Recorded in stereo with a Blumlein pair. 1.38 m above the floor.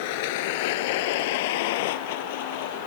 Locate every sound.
0.0 s a vehicle: 50° left